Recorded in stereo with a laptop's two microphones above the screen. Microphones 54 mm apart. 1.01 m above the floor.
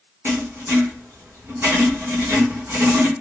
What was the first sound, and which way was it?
Writing, 50° right (ahead or behind).